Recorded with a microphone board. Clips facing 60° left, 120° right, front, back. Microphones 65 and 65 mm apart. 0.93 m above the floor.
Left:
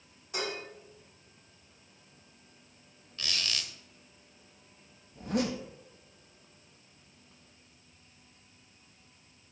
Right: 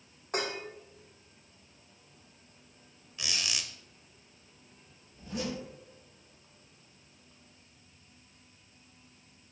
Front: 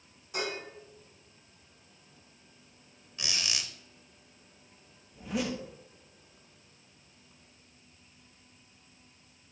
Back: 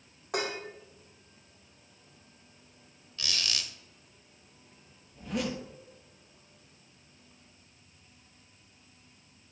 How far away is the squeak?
About 0.7 m.